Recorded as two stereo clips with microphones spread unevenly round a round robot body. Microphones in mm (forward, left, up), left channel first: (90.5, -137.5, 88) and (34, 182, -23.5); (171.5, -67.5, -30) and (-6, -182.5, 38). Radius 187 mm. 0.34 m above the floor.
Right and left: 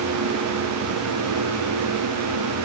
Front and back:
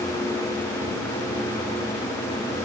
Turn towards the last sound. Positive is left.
No sound to turn to.